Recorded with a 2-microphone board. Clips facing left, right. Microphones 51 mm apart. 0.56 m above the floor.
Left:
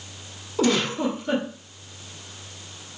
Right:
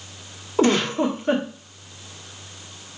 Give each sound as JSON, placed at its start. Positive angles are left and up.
{"t": 0.6, "sound": "a giggle", "side_deg": -40, "distance_m": 1.4}